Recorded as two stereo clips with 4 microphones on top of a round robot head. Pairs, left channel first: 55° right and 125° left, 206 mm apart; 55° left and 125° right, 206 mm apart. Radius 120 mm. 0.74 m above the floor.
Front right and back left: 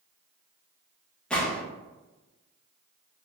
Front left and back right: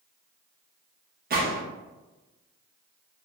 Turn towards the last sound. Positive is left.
turn(degrees=-140)